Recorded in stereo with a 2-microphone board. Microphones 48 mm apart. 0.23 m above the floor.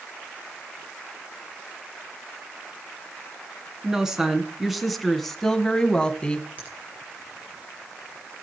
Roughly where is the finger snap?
Right.